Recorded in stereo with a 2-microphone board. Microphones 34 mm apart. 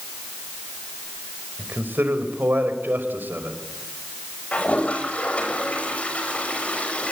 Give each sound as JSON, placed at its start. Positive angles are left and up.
{"t": 1.6, "sound": "a man speaking", "side_deg": -80, "distance_m": 4.5}
{"t": 4.5, "sound": "a toilet flushing", "side_deg": 40, "distance_m": 6.0}